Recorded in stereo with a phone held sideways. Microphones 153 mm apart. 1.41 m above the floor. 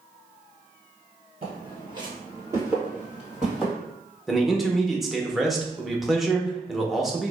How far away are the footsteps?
About 1.7 m.